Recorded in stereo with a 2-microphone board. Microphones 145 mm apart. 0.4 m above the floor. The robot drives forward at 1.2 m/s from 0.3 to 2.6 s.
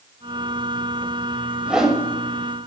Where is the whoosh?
5° right (ahead or behind), 0.6 m.